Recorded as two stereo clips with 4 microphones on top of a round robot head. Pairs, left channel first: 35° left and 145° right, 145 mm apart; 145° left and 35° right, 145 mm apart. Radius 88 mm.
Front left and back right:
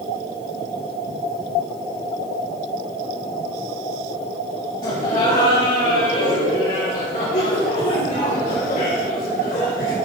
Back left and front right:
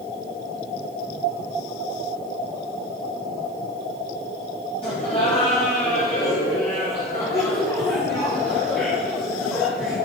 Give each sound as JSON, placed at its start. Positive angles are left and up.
{"t": 4.8, "sound": "laughter", "azimuth_deg": 95, "distance_m": 6.0}